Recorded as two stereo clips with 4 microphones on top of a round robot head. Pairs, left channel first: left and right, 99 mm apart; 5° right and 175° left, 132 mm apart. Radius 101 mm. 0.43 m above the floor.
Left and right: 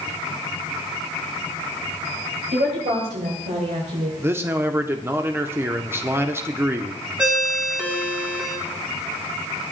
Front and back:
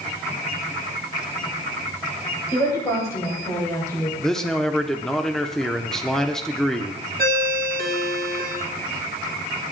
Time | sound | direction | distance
2.5 | a woman speaking | 75° right | 7 m
4.2 | a man speaking | 85° right | 0.9 m
7.2 | a ringtone | 170° right | 2.5 m